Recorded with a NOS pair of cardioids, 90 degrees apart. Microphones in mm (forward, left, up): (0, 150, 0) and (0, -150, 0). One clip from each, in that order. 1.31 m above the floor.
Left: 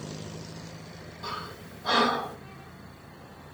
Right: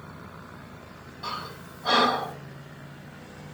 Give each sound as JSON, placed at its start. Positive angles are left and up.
{"t": 1.2, "sound": "breathing", "azimuth_deg": -20, "distance_m": 4.5}